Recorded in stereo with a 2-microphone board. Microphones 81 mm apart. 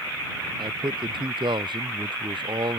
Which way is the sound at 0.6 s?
75° right (ahead or behind).